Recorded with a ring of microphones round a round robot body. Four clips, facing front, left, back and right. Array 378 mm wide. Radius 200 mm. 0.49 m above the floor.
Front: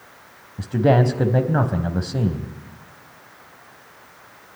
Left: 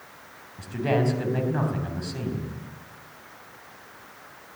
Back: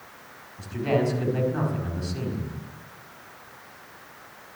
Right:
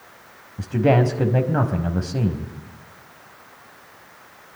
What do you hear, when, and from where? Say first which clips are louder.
0.6 s a man speaking: right 7 dB, front 7 dB; 35° right, 4 m